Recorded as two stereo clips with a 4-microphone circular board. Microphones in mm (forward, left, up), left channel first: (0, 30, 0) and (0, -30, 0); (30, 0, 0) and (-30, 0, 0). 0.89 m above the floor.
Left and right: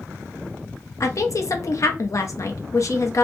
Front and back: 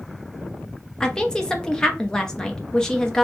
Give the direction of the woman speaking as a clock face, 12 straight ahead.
9 o'clock.